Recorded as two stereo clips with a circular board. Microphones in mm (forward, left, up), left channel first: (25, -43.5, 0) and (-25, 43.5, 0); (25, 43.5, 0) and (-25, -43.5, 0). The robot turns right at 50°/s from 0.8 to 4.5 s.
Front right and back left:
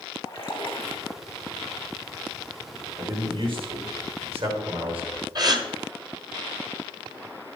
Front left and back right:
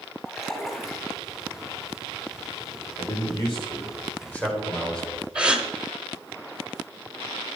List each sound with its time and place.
0.2 s a splash: 35° right, 3 m; by 1.2 s 15° right, 3 m
3.0 s a man speaking: 65° left, 3 m; by 5.2 s 140° left, 3 m
5.3 s a gasp: 160° left, 1.1 m